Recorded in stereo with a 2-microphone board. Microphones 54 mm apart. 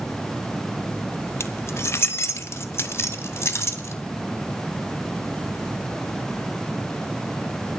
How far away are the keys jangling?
About 0.8 m.